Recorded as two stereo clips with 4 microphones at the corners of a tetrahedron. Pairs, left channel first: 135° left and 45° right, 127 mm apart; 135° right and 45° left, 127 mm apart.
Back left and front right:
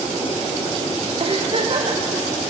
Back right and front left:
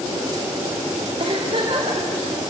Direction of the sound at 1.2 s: 5° right.